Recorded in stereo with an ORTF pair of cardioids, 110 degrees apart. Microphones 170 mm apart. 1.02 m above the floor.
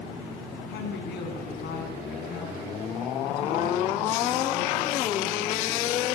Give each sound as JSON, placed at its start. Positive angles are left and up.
{"t": 0.7, "sound": "a woman speaking", "azimuth_deg": 70, "distance_m": 8.5}